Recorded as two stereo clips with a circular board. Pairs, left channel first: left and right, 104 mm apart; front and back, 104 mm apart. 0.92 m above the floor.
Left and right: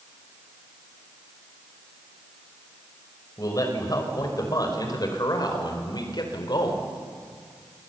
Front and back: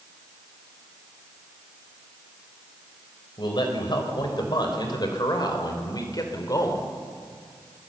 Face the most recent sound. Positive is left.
turn(degrees=50)